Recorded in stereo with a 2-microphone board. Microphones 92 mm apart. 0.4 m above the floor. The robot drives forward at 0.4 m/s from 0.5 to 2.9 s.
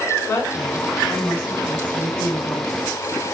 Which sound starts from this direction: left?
A woman speaking, at 0.3 s.